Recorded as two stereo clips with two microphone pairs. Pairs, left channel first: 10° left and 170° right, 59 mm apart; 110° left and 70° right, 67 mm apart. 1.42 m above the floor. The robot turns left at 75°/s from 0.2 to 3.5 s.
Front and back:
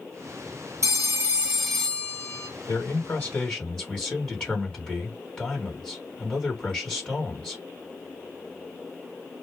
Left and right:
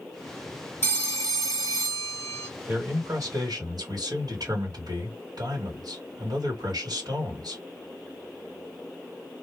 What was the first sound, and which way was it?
A phone ringing, 160° left.